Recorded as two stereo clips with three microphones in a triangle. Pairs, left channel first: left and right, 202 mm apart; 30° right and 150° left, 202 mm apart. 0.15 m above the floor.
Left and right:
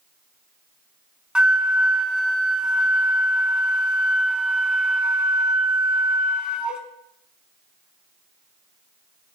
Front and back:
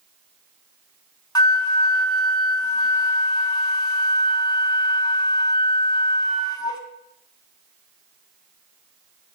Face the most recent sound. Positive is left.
turn(degrees=-15)